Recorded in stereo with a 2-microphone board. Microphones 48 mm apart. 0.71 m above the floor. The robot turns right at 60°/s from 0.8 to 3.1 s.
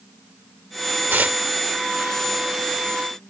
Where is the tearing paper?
45° right (ahead or behind); by 1.4 s 30° right (ahead or behind).